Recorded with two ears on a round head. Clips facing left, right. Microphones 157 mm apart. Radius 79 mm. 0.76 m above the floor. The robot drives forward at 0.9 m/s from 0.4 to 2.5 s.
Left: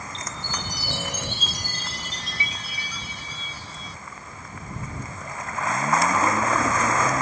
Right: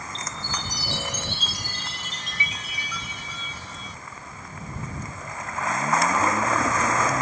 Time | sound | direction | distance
0.1 | a chime | 55° left (ahead or behind) | ?